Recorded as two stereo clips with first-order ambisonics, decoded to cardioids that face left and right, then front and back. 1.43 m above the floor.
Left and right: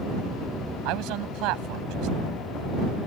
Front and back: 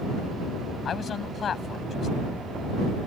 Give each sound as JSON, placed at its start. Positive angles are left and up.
{"t": 0.8, "sound": "a man speaking", "azimuth_deg": -65}